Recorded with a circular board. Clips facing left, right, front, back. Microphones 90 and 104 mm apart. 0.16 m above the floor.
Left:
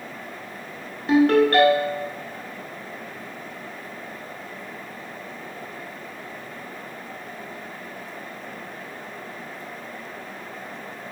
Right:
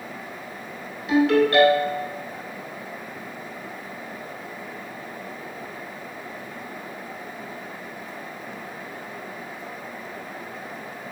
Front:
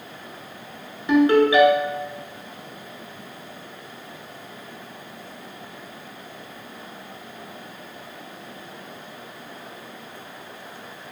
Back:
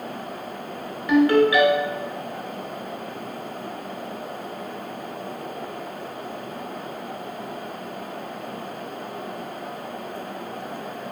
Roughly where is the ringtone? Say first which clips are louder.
Left 2 dB, front 1 dB; ahead left.